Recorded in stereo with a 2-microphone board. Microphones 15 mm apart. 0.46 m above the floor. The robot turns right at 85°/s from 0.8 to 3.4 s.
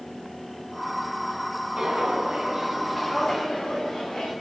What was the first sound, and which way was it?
Footsteps, 65° right (ahead or behind).